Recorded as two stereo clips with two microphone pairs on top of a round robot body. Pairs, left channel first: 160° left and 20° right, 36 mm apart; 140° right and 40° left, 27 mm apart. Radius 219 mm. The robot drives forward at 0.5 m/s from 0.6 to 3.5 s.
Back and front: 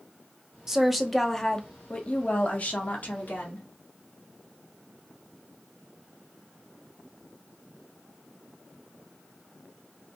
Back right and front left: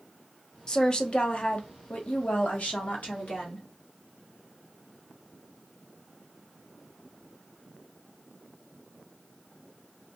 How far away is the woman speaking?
About 1.0 m.